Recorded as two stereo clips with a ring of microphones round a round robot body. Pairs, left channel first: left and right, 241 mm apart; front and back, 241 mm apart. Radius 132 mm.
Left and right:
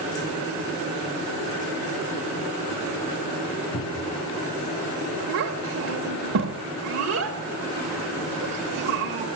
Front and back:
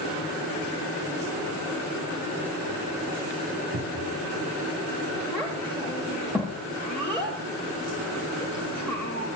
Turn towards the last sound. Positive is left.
turn(degrees=-85)